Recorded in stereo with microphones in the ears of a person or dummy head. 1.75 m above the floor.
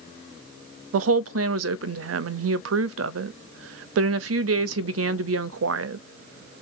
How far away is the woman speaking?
About 0.6 m.